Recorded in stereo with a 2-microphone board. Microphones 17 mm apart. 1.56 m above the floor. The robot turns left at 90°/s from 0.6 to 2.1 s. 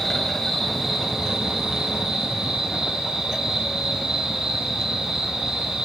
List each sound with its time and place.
0.0 s an insect: 10° left, 8.5 m; by 5.8 s 125° right, 8.5 m